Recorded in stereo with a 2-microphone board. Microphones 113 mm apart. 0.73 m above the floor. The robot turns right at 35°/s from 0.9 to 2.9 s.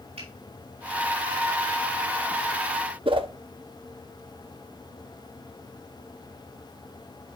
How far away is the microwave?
No microwave in this recording.